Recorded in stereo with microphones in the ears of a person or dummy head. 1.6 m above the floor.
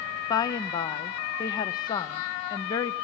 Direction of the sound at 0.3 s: 20° left (ahead or behind).